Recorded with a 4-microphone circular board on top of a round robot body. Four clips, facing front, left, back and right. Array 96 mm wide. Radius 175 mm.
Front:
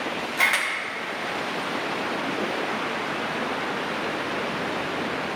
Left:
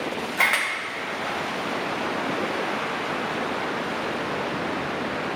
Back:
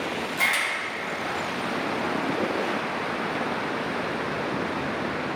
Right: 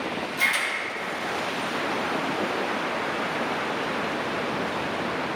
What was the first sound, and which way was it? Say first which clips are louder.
A camera shutter: left 5 dB, front 3 dB; 75° left.